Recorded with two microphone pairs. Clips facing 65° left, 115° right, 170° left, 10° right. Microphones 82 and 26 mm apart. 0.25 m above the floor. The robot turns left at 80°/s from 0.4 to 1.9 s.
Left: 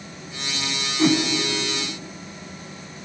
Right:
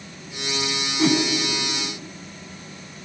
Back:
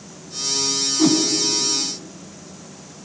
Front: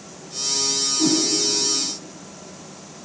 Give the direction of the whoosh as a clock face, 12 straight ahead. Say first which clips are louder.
Left 1 dB, back 4 dB; 7 o'clock.